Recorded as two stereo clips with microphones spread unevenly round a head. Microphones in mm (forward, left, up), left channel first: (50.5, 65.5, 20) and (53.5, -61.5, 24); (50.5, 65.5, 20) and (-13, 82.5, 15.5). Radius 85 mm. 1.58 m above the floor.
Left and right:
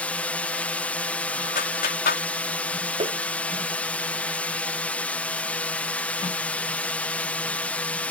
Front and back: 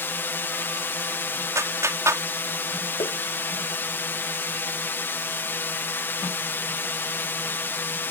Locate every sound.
0.0 s a drone: 20° left
1.6 s a clap: 120° left
3.0 s tapping: 45° right